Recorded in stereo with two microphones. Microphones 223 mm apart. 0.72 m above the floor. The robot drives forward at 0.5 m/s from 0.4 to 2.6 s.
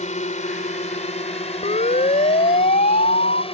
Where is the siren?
35° left (ahead or behind); by 3.4 s 45° left (ahead or behind).